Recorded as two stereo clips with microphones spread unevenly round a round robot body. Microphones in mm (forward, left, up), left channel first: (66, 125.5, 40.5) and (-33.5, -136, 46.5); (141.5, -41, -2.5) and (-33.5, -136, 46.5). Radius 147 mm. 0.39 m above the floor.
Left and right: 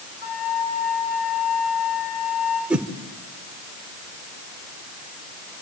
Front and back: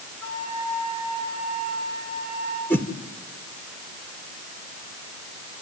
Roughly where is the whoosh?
Ahead right.